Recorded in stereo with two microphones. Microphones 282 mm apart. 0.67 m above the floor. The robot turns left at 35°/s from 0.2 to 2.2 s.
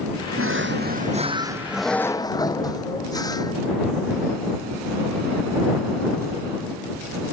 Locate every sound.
0.4 s a drawer: 130° right; by 3.5 s 165° left